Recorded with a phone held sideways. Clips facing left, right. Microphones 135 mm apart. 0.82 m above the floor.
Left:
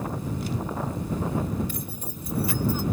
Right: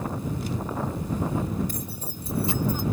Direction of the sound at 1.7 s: 45° right (ahead or behind).